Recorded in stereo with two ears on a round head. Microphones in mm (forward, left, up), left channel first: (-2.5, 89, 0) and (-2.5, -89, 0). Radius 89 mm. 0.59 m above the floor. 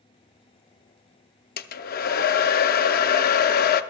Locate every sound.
1.6 s a hair dryer: 45° left (ahead or behind), 0.6 m